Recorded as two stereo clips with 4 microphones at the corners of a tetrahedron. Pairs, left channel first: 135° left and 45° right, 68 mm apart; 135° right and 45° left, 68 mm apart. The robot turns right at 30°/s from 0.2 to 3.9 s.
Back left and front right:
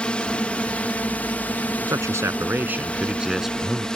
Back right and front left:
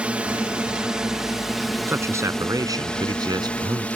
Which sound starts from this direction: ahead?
A man speaking, at 1.9 s.